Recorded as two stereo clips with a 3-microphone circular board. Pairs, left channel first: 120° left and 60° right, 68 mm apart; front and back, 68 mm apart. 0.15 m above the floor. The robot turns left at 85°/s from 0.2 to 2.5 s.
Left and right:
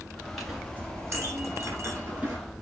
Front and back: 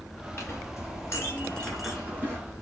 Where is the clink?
35° left, 1.4 m; by 2.4 s 140° right, 1.4 m.